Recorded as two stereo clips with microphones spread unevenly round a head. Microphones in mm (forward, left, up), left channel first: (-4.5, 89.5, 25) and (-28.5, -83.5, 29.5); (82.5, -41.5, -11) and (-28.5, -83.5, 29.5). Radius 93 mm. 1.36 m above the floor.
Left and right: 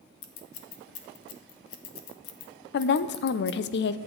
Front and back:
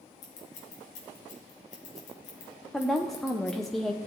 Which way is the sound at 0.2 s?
70° left.